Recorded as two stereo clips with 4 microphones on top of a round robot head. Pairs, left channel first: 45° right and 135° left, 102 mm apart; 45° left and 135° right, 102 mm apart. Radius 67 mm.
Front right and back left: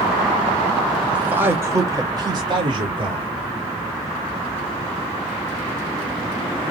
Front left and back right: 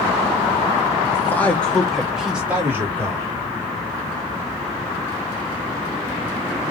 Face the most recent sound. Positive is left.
turn(degrees=160)